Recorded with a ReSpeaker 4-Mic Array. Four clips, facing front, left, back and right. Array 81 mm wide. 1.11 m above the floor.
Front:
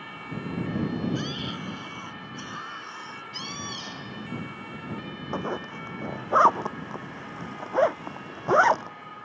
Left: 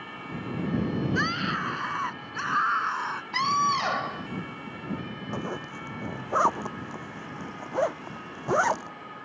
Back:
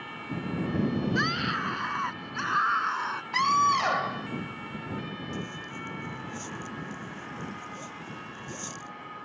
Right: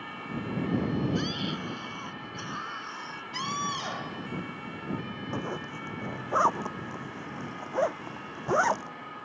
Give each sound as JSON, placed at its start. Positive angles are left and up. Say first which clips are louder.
{"t": 1.1, "sound": "a scream", "louder": "left 4 dB, back 5 dB", "azimuth_deg": 125}
{"t": 3.3, "sound": "a scream", "louder": "left 8 dB, back 19 dB", "azimuth_deg": 145}
{"t": 5.3, "sound": "a zipper", "louder": "left 1 dB, front 6 dB", "azimuth_deg": 5}